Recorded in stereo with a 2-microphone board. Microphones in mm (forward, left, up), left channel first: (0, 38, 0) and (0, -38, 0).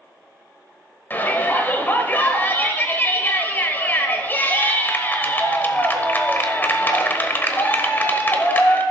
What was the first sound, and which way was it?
A shout, 30° left (ahead or behind).